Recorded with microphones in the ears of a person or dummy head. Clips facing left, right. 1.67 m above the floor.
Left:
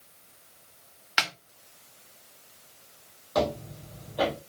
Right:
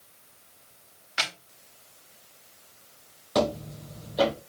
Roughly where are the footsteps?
Right.